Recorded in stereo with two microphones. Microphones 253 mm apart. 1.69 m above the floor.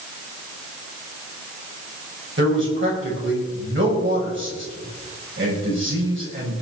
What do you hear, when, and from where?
2.4 s a man speaking: 50° right (ahead or behind), 8 m